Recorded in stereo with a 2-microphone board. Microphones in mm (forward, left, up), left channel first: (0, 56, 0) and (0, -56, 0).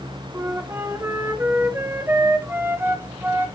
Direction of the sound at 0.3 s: 20° right (ahead or behind).